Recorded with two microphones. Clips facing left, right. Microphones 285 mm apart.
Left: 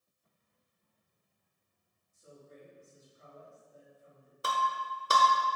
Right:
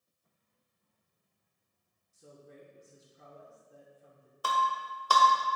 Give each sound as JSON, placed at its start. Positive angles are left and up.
{"t": 2.1, "sound": "a man speaking", "side_deg": -90, "distance_m": 1.9}
{"t": 4.4, "sound": "breaking glass", "side_deg": 25, "distance_m": 1.3}